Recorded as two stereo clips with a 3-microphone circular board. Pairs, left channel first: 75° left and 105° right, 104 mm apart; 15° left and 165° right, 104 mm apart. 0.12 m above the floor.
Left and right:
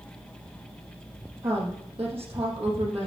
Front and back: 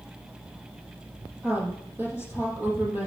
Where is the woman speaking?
95° right, 4 m.